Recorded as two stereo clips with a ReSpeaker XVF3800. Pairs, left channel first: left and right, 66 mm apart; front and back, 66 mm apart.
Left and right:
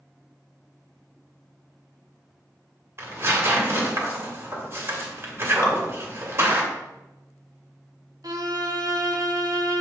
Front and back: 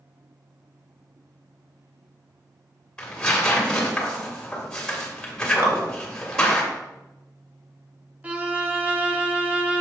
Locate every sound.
3.0 s tearing paper: 75° right, 1.7 m
5.6 s dripping: 130° left, 1.4 m
8.2 s a violin: 110° right, 0.6 m